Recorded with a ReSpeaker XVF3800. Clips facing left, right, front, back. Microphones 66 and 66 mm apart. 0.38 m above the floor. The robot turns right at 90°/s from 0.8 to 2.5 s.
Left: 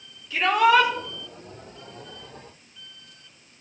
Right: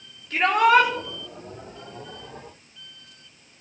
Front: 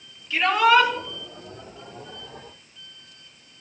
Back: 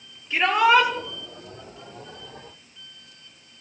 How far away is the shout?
About 9.5 m.